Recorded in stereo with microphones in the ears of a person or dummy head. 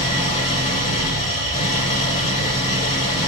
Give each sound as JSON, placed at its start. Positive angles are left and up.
{"t": 0.0, "sound": "an engine running", "side_deg": 35, "distance_m": 1.4}